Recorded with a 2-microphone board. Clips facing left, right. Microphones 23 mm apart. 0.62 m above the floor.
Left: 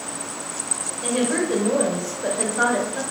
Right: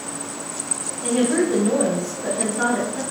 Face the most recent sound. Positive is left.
turn(degrees=65)  # may be behind; listen again after turning